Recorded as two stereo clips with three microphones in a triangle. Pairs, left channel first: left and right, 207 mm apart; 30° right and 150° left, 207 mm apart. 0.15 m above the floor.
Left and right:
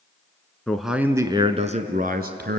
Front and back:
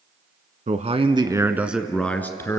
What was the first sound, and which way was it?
A man speaking, 170° left.